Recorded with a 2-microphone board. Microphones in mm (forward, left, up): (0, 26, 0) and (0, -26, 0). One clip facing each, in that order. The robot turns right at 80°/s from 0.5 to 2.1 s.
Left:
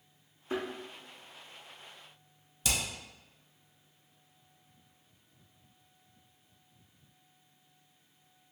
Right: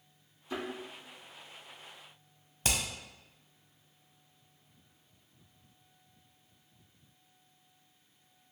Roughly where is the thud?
Left.